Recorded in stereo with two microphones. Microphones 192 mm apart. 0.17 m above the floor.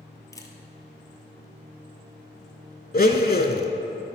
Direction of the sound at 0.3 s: 20° left (ahead or behind).